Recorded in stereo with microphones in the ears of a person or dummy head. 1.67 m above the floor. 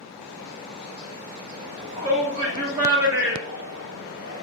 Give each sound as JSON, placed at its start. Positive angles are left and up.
{"t": 1.6, "sound": "a shout", "side_deg": -35, "distance_m": 1.4}